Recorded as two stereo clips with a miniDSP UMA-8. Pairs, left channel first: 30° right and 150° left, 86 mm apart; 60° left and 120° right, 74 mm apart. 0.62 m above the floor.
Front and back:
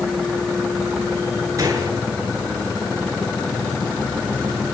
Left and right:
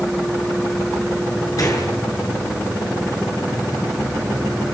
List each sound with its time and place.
1.6 s a gunshot: 100° left, 8.5 m